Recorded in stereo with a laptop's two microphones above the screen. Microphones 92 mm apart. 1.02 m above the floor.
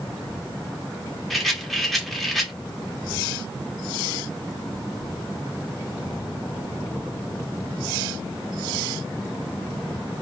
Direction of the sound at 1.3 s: Centre (ahead or behind).